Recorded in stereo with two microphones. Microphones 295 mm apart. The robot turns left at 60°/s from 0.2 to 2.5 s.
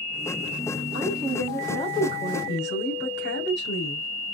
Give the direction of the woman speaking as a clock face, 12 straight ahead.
4 o'clock.